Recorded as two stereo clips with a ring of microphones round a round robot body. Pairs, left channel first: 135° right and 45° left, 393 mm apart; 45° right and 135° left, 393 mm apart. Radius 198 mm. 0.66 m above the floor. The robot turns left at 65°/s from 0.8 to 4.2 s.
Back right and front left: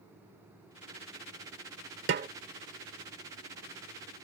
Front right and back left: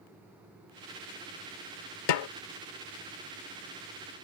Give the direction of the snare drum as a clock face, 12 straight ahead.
1 o'clock.